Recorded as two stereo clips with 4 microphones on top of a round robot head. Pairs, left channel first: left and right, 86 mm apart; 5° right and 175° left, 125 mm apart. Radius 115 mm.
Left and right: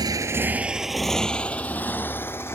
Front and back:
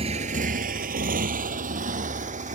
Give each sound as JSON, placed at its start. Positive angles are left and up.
{"t": 0.0, "sound": "a motorcycle", "azimuth_deg": -130}